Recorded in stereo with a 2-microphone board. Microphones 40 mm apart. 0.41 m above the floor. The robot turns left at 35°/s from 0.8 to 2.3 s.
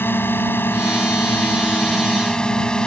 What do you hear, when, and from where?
0.0 s a drone: 75° left; by 2.9 s 20° left